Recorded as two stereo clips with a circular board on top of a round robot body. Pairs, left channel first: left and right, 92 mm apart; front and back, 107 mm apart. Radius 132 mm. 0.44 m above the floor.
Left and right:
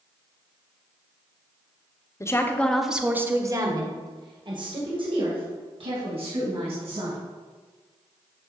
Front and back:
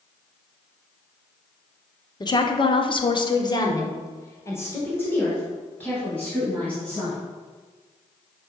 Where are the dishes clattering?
I don't hear dishes clattering.